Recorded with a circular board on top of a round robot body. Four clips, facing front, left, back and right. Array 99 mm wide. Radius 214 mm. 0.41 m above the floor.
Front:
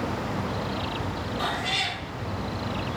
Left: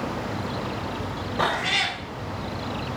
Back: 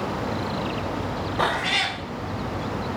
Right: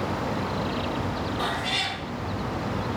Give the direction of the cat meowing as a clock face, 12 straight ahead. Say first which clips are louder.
Left 3 dB, back 6 dB; 7 o'clock.